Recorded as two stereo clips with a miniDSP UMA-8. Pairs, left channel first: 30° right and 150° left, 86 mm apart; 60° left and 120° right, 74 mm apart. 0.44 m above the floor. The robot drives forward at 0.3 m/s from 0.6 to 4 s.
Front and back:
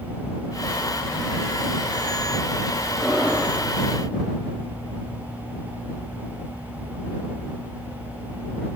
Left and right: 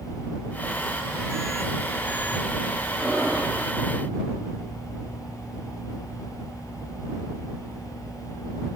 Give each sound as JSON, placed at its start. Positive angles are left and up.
{"t": 3.0, "sound": "breathing", "azimuth_deg": -120, "distance_m": 1.1}